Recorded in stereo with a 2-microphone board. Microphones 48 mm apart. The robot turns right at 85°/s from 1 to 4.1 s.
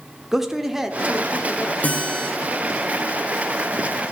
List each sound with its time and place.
0.3 s a man speaking: 15° right, 0.9 m; by 1.7 s 45° left, 0.9 m
1.8 s a guitar: 130° left, 2 m; by 2.3 s 170° left, 2 m